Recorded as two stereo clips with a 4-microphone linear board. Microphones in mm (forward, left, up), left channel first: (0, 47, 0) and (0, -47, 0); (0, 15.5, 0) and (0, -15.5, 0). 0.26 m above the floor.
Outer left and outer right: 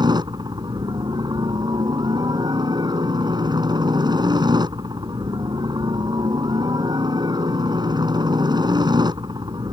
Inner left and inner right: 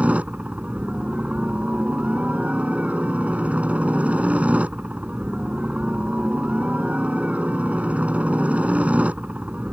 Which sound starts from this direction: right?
A helicopter, at 0.0 s.